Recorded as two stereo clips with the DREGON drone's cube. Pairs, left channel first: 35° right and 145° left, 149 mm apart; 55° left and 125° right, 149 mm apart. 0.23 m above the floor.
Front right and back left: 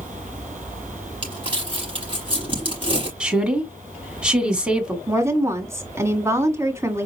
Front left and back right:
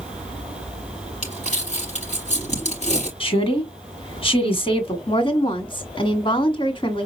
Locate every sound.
1.2 s crumpling: 90° left, 4.5 m
3.2 s a woman speaking: 65° left, 1.5 m
5.1 s a woman speaking: 85° left, 1.7 m